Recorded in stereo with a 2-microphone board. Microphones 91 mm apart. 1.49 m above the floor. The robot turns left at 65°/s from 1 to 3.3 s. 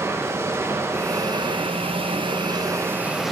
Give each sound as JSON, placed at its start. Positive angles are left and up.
{"t": 0.0, "sound": "running water", "azimuth_deg": -30, "distance_m": 1.1}